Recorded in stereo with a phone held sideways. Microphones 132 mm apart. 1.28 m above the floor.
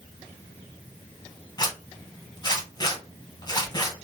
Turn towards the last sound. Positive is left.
turn(degrees=30)  # may be behind; listen again after turning